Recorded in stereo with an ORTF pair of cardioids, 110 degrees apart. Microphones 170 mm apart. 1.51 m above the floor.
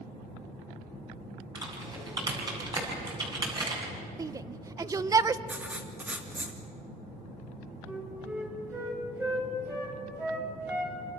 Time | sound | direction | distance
1.6 | typing on a keyboard | 25° right | 8 m
4.2 | a shout | 20° right | 1.0 m
5.5 | writing | 10° right | 3 m
7.8 | a flute | 15° right | 6 m